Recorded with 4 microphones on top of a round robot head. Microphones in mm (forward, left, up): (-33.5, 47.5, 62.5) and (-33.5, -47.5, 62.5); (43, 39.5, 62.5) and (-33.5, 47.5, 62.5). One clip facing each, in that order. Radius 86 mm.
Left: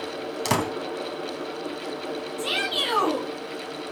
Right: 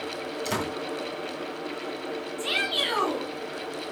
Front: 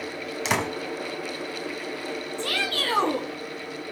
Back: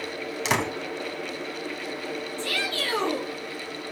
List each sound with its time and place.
0.5 s a door slam: 85° left, 2.5 m
2.4 s a shout: 20° left, 5 m